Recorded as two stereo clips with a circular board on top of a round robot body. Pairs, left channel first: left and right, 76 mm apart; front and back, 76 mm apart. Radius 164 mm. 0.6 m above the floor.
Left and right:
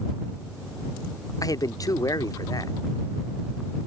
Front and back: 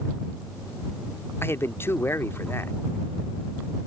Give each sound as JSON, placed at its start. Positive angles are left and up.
{"t": 1.4, "sound": "a man speaking", "azimuth_deg": 55}